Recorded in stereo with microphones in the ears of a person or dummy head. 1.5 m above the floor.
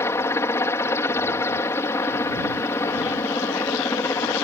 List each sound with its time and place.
0.0 s a helicopter: 15° left (ahead or behind)